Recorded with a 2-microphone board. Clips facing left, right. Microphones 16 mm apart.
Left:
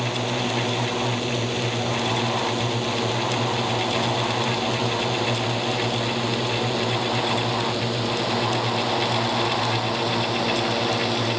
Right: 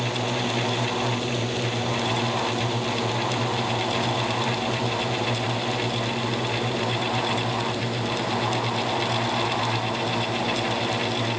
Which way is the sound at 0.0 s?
10° left (ahead or behind).